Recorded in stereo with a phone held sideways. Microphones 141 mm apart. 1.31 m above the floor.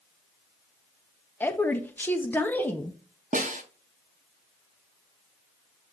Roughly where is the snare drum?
Right.